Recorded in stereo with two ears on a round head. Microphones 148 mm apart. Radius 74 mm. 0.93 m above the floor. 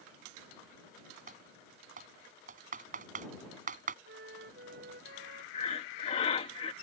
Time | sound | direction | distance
1.3 | typing on a keyboard | 50° right (ahead or behind) | ?
4.0 | a flute | 65° right (ahead or behind) | ?
5.5 | breathing | 40° left (ahead or behind) | ?